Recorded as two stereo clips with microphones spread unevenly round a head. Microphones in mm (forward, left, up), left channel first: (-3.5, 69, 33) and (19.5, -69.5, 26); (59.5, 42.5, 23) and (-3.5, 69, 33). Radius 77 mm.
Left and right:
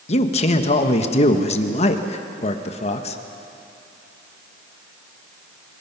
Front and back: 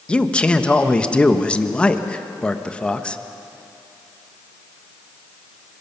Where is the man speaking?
55° left, 1.3 m.